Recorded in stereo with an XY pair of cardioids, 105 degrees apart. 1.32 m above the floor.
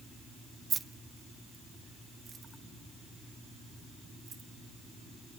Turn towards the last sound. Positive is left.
turn(degrees=-45)